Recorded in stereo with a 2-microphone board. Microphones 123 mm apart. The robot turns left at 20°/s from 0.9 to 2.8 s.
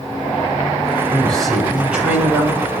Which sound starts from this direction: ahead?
A man speaking, at 1.1 s.